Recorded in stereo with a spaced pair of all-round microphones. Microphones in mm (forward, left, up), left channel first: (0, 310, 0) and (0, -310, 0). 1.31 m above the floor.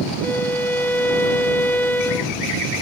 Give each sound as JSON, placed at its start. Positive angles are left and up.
{"t": 0.2, "sound": "a violin", "side_deg": 5}